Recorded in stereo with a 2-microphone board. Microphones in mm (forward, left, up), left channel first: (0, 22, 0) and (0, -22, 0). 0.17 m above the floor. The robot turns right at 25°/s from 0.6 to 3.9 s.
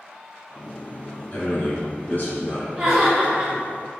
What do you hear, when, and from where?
1.3 s a man speaking: 35° left, 1.9 m; by 2.7 s 70° left, 1.9 m
2.8 s laughter: 20° right (ahead or behind), 1.6 m; by 3.5 s 15° right (ahead or behind), 1.6 m